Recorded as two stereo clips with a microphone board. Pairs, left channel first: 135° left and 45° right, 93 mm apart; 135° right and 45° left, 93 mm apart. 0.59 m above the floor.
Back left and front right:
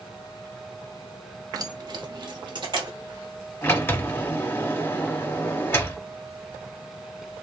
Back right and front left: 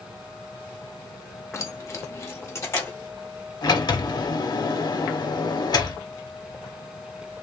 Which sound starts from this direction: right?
Keys jangling, at 1.5 s.